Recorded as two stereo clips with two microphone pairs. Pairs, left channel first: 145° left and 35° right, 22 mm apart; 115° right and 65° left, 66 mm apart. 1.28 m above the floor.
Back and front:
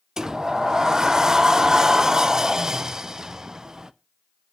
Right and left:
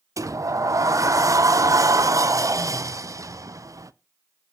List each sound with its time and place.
0.2 s a sliding door: 25° left, 0.6 m